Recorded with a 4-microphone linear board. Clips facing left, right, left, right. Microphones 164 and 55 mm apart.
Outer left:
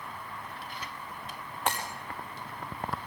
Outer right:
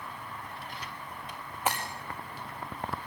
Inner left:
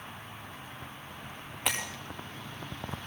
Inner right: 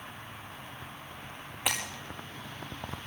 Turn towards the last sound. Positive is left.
turn(degrees=-5)  # may be behind; listen again after turning